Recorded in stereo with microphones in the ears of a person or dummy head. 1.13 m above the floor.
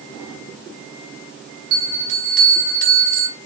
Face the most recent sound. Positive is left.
turn(degrees=-50)  # may be behind; listen again after turning